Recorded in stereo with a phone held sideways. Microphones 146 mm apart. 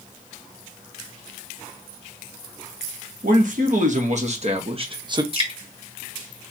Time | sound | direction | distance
3.2 | a man speaking | 65° right (ahead or behind) | 1.6 m
5.3 | dripping | 40° right (ahead or behind) | 1.4 m